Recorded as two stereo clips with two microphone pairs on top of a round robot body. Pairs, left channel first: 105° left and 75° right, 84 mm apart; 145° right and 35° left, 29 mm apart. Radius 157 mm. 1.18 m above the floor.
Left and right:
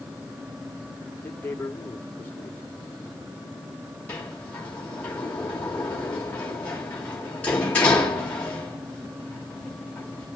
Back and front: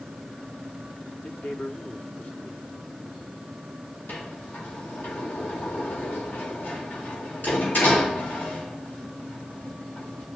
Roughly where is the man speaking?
Behind.